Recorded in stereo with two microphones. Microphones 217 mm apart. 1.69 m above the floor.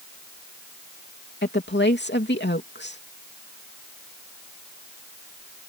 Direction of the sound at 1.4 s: 55° left (ahead or behind).